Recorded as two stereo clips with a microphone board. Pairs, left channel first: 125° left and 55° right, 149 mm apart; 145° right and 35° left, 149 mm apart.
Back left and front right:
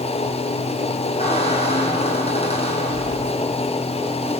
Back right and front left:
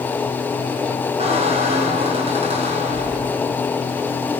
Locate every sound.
1.2 s a squeak: 80° left, 4.5 m